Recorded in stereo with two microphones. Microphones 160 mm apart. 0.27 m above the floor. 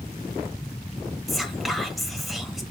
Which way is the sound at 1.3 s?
Centre (ahead or behind).